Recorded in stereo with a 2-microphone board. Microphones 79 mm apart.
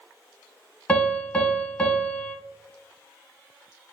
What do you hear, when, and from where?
0.9 s a piano: 20° left (ahead or behind), 0.9 m